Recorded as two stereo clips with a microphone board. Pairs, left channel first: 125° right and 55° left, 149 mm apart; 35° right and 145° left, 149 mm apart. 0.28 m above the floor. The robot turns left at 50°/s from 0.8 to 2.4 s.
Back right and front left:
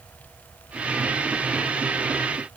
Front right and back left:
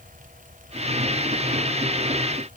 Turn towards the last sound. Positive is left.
No sound to turn to.